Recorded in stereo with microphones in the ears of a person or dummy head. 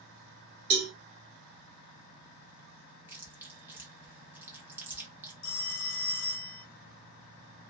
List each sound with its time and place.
0.7 s a cowbell: 50° right (ahead or behind), 1.1 m
3.1 s chewing: 5° right (ahead or behind), 0.5 m
5.4 s a phone ringing: 60° left (ahead or behind), 0.7 m